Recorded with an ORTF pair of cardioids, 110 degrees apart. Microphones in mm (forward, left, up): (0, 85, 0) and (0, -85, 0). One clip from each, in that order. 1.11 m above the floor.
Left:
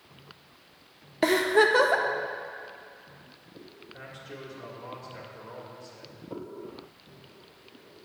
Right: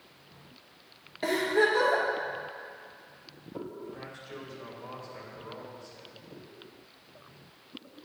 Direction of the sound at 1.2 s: 55° left.